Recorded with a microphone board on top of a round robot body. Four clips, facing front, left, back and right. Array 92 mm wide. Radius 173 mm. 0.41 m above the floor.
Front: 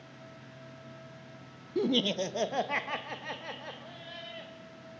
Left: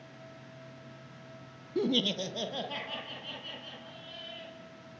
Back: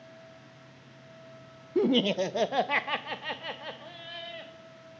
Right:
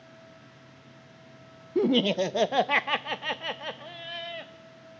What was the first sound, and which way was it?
Laughter, 135° right.